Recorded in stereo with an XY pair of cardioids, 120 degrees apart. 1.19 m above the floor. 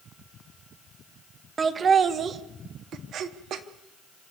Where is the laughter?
30° right, 1.5 m; by 3.6 s 65° right, 1.8 m.